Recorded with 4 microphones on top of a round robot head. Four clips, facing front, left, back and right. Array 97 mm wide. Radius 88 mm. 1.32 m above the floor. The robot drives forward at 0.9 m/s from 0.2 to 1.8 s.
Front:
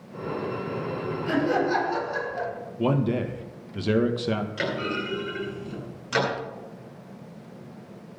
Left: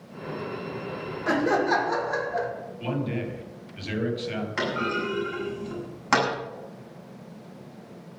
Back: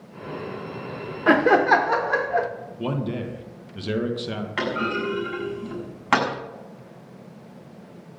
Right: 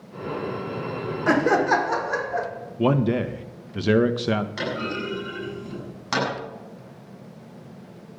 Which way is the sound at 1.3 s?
160° right.